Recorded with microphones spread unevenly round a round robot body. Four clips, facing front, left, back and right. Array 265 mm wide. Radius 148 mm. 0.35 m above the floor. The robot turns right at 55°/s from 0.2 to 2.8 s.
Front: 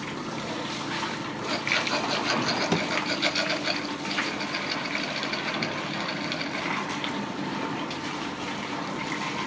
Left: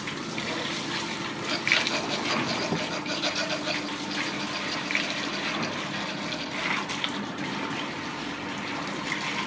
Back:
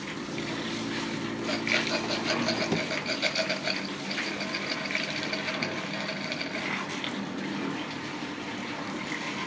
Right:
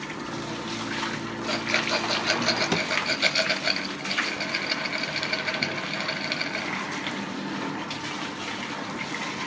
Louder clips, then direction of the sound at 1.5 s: Right 3 dB, front 2 dB; 140° right.